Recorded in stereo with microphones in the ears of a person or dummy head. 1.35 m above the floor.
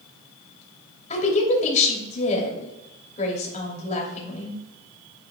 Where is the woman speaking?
40° left (ahead or behind), 2.5 m.